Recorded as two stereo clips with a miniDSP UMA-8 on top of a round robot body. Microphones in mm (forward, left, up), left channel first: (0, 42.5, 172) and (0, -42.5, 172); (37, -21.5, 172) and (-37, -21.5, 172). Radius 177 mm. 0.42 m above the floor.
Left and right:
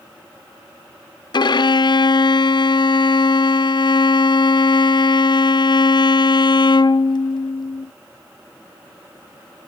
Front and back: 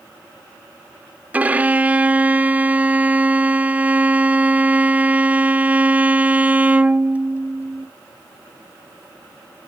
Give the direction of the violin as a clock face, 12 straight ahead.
8 o'clock.